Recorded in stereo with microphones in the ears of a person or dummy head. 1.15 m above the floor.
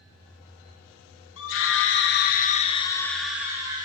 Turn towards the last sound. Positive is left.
turn(degrees=-20)  # may be behind; listen again after turning